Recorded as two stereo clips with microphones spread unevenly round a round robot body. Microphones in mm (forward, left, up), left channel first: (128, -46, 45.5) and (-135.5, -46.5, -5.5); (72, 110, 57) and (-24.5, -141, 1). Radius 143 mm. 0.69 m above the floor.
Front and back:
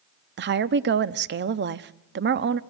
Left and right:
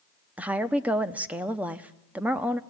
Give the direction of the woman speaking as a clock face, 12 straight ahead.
6 o'clock.